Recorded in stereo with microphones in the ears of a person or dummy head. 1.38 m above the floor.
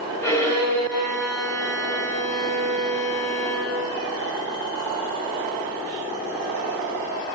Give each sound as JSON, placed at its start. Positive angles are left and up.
{"t": 0.2, "sound": "a violin", "side_deg": 15, "distance_m": 3.5}